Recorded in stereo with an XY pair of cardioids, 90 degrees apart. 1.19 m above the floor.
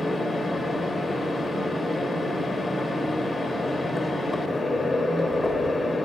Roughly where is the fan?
Ahead left.